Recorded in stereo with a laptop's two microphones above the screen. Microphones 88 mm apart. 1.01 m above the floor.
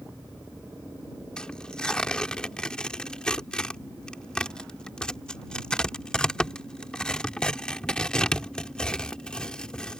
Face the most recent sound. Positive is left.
turn(degrees=10)  # may be behind; listen again after turning